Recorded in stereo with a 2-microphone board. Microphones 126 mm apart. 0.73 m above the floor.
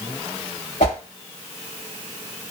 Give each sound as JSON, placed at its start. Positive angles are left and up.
{"t": 0.8, "sound": "a whoosh", "side_deg": 85, "distance_m": 2.0}